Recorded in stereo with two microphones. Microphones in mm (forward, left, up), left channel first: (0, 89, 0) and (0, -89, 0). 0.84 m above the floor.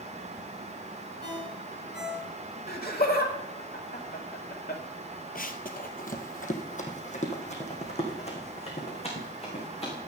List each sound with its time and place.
1.2 s a ringtone: 75° left (ahead or behind), 3.5 m
2.7 s laughter: 60° left (ahead or behind), 2.5 m
5.3 s running footsteps: 55° left (ahead or behind), 1.2 m; by 10.0 s 35° left (ahead or behind), 5.5 m